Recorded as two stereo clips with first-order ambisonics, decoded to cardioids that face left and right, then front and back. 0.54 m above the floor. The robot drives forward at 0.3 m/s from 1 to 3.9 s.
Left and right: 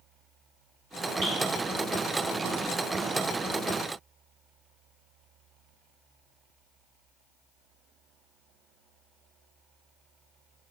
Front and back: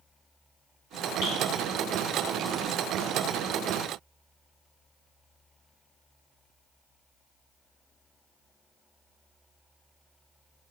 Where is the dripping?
35° right, 1.8 m.